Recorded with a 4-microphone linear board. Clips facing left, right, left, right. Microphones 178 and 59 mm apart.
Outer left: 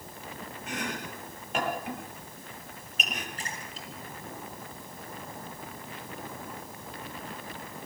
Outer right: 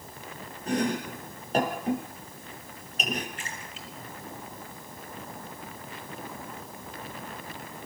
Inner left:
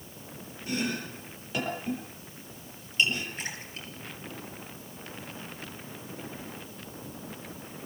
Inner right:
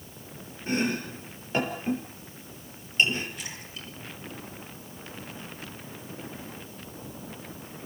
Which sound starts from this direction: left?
A splash, at 3.4 s.